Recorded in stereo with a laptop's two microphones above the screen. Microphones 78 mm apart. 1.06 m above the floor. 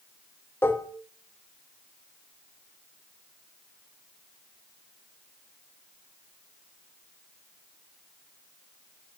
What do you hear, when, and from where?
0.6 s dishes clattering: 30° left (ahead or behind), 0.7 m